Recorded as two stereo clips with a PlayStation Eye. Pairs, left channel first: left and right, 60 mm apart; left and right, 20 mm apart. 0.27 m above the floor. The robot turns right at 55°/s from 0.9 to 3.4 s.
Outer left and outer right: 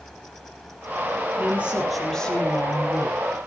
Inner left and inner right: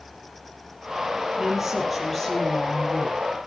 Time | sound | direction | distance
1.4 | a woman speaking | 35° right | 5.5 m